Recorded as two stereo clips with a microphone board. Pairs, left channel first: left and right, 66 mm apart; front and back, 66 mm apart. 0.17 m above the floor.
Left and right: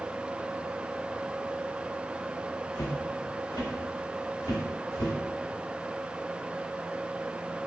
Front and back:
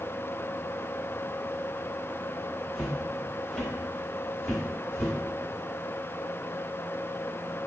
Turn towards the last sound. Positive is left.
turn(degrees=75)